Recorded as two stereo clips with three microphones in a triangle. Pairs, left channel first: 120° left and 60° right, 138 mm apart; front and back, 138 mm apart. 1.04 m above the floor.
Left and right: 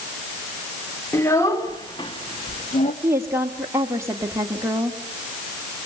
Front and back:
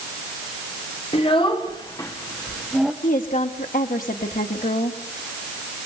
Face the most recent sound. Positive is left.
turn(degrees=10)